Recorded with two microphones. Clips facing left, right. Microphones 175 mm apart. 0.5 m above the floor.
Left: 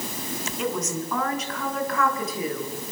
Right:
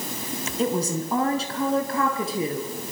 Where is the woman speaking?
30° right (ahead or behind), 4.5 m.